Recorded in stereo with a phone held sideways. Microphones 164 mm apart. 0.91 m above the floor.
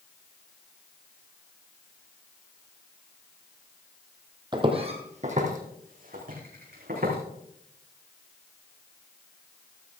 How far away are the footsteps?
About 1.9 m.